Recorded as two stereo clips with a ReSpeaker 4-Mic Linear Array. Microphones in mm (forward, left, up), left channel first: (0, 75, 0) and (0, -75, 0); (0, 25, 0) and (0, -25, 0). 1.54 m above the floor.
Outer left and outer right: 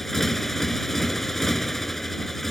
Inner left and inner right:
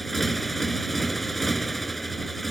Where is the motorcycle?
Centre (ahead or behind).